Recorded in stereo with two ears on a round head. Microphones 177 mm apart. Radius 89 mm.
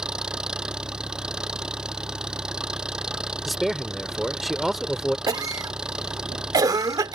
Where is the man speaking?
Centre (ahead or behind).